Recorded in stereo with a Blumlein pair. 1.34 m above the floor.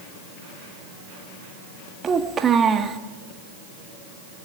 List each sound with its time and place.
2.0 s a child speaking: 20° right, 1.5 m